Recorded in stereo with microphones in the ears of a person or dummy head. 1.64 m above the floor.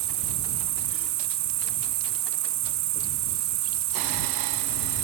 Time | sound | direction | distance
0.0 | an insect | 50° right (ahead or behind) | ?